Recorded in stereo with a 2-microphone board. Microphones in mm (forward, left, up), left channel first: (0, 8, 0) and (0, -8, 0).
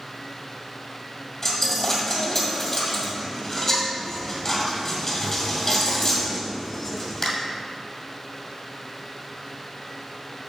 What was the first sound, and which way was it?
A dropped coin, 30° left (ahead or behind).